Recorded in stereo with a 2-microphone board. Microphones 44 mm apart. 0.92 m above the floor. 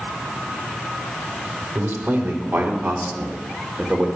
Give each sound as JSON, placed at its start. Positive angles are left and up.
{"t": 1.8, "sound": "a man speaking", "side_deg": -75, "distance_m": 3.5}